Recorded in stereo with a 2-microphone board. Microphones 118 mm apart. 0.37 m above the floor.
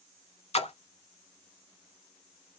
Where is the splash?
60° left (ahead or behind), 0.6 m.